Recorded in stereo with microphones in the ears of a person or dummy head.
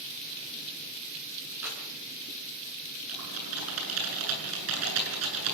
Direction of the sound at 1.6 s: 10° right (ahead or behind).